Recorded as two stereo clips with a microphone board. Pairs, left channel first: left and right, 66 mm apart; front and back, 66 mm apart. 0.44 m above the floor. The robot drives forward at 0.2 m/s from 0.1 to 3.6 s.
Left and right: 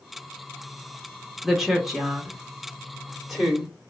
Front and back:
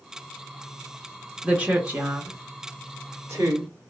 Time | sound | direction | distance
1.4 | a woman speaking | 170° right | 0.7 m